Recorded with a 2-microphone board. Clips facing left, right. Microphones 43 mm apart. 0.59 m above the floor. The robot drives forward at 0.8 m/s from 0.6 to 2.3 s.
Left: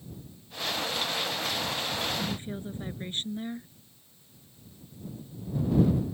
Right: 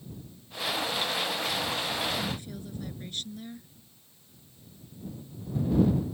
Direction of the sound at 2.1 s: 30° left (ahead or behind).